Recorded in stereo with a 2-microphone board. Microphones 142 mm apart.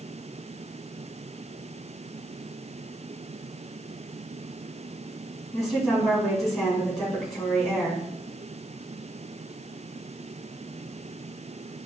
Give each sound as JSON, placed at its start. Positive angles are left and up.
{"t": 5.5, "sound": "a woman speaking", "side_deg": 5, "distance_m": 2.5}